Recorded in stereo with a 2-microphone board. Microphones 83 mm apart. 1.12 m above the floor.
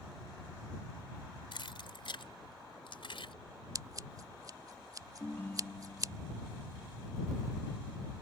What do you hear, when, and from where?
1.5 s keys jangling: 70° left (ahead or behind); by 3.3 s 80° left
3.8 s scissors: 45° right (ahead or behind)
5.2 s a ringtone: 25° left (ahead or behind)